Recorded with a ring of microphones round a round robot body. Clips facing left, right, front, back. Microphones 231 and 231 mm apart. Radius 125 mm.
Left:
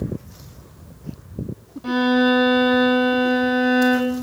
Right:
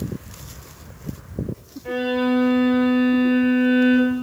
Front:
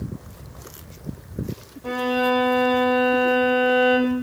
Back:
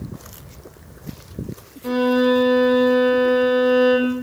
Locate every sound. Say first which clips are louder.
1.8 s a violin: left 4 dB, back 6 dB; 115° left, 4.5 m